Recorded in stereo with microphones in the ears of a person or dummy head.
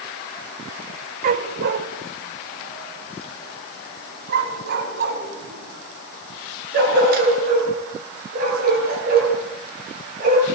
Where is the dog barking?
40° right (ahead or behind), 1.8 m; by 10.4 s 60° right (ahead or behind), 12 m.